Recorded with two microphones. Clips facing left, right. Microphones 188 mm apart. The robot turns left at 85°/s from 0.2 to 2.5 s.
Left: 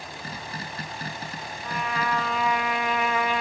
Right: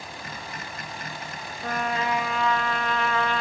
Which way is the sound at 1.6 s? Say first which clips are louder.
Right 2 dB; 120° right.